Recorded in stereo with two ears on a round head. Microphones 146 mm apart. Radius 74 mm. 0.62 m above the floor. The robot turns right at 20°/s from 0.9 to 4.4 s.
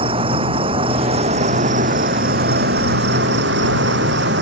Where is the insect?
145° right; by 4.4 s 75° right.